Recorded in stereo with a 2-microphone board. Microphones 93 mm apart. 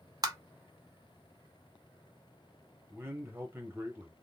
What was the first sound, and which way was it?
Tapping, 40° right (ahead or behind).